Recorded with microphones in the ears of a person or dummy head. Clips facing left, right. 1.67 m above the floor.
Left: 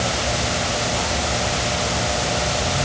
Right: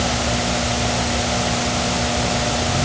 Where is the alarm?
I don't hear an alarm.